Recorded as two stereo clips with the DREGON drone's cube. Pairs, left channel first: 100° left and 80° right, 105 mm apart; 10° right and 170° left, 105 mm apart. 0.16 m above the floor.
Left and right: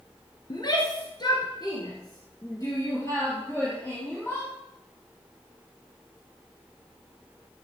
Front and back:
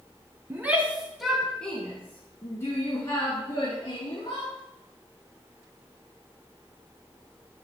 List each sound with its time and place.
0.5 s a shout: 105° left, 1.7 m; by 4.5 s 35° left, 3.5 m